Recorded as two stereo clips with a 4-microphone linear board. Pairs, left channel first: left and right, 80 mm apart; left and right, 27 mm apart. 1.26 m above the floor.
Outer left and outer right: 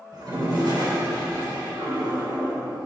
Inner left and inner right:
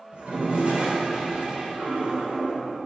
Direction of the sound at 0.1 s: 65° right (ahead or behind).